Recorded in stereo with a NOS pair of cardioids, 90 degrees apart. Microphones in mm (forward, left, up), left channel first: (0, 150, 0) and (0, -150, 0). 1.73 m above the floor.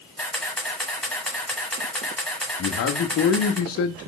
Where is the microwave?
I don't hear a microwave.